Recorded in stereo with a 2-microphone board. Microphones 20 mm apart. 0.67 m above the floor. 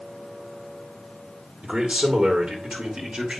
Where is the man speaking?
65° right (ahead or behind), 2 m; by 3.4 s 50° right (ahead or behind), 2.5 m.